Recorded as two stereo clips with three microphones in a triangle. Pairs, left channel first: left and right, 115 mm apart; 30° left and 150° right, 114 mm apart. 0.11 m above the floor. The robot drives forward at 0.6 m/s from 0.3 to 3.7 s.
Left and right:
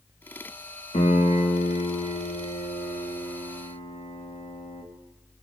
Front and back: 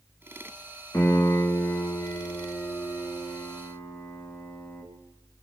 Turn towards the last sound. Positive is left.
turn(degrees=105)